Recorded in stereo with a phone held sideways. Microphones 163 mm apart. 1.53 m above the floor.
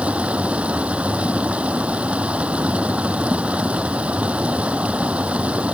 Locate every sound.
0.0 s running water: 10° right (ahead or behind)